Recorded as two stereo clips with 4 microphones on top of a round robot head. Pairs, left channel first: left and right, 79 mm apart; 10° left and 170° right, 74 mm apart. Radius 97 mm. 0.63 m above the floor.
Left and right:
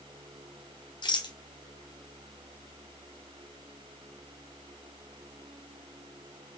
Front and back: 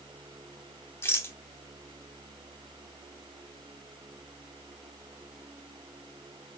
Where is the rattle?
70° left, 0.9 m.